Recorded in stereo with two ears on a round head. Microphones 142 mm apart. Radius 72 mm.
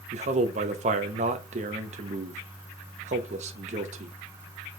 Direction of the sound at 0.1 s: 45° right (ahead or behind).